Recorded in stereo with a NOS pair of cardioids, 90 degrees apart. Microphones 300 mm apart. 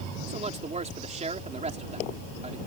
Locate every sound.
0.3 s a man speaking: 25° right